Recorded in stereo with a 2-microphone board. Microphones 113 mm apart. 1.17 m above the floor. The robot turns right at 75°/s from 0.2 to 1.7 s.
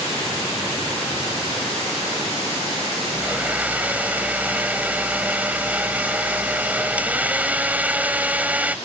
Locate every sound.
3.1 s a blender: 15° right (ahead or behind)